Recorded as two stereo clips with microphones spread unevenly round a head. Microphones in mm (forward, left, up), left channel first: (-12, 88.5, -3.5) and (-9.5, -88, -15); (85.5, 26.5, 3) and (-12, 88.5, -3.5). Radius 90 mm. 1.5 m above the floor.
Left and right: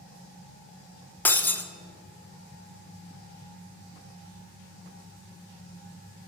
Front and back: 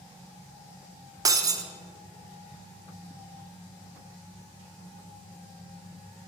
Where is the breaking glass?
150° left, 0.6 m.